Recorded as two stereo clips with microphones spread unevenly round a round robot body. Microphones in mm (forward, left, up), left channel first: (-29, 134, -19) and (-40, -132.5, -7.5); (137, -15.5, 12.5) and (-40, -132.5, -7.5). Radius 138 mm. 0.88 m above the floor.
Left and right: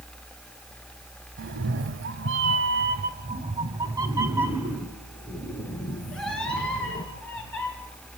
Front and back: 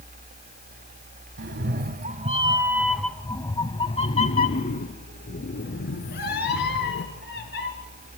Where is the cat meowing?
125° right, 1.1 m; by 7.7 s 5° left, 3 m.